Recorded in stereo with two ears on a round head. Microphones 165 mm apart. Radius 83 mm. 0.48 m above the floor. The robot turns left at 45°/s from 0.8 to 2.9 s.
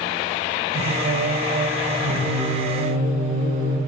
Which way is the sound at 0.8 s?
130° right.